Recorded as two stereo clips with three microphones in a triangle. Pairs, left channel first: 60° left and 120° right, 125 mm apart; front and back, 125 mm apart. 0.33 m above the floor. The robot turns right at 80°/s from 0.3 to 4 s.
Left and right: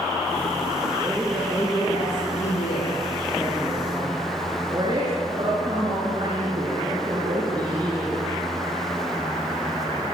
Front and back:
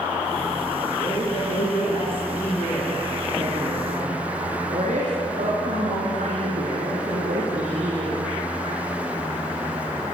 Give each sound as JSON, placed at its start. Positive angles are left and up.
{"t": 0.9, "sound": "a man speaking", "azimuth_deg": -55, "distance_m": 6.0}